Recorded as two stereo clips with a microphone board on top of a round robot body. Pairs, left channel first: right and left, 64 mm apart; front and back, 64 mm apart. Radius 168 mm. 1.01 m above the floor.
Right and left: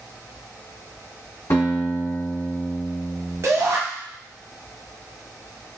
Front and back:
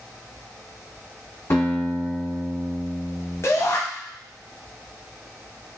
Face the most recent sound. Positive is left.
turn(degrees=45)